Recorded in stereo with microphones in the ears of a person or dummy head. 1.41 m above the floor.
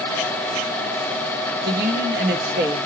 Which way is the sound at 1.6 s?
60° right (ahead or behind).